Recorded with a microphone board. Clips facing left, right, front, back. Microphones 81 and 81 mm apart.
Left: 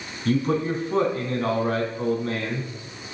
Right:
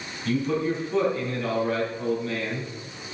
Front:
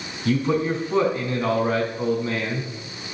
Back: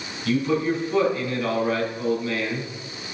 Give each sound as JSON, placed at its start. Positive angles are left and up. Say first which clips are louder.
{"t": 0.2, "sound": "a man speaking", "louder": "left 2 dB, front 1 dB", "azimuth_deg": 55, "distance_m": 4.0}